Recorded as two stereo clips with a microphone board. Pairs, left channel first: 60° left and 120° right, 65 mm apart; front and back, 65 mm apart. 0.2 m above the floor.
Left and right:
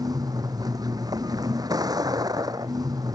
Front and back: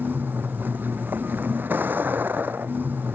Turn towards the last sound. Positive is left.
turn(degrees=-120)